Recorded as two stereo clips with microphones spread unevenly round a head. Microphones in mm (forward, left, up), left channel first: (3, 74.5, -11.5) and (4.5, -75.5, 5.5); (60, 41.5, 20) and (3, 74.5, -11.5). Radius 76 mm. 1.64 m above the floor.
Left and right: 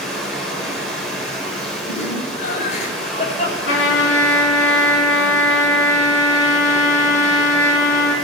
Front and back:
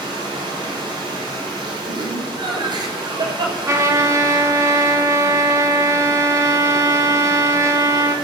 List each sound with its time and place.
0.0 s running water: straight behind, 7 m
1.9 s laughter: 140° left, 7 m
3.7 s a trumpet: 105° left, 3 m